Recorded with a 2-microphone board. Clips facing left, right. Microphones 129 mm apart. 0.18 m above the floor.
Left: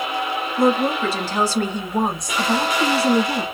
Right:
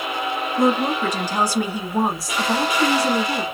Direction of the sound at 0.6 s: 20° right (ahead or behind).